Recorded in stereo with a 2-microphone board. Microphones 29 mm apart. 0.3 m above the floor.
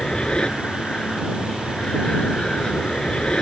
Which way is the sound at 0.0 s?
35° left (ahead or behind).